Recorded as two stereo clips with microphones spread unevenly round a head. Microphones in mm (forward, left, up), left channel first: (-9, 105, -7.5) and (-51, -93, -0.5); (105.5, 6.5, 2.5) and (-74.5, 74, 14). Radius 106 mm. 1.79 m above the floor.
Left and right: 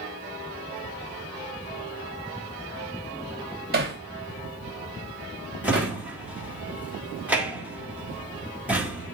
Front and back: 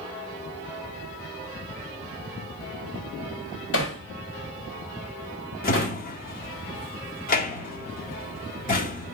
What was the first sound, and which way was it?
Hammering, 55° right.